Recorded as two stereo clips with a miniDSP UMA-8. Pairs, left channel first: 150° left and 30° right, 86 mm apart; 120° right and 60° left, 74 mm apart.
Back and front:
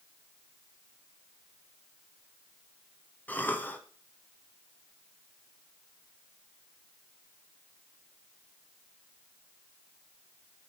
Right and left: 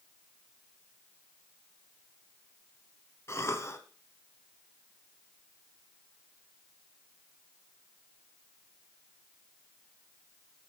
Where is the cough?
150° right, 1.3 m.